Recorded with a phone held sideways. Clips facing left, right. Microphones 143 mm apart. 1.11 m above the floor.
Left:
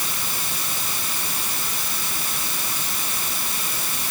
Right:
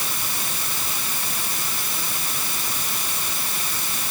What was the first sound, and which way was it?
Only background noise.